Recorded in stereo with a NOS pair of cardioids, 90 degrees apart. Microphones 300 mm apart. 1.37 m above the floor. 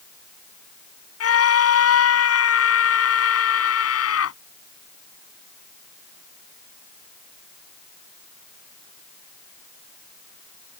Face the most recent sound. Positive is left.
turn(degrees=50)